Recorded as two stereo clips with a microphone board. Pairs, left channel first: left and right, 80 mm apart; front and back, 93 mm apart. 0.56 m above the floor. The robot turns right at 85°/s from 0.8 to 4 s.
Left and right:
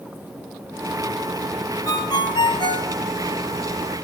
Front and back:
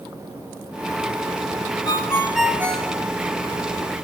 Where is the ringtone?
40° left, 1.9 m; by 2.9 s 130° left, 1.9 m.